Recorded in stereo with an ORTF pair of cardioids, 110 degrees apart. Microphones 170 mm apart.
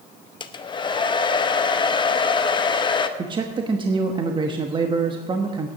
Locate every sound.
0.4 s a hair dryer: 30° left, 0.8 m
3.2 s a man speaking: 30° right, 1.1 m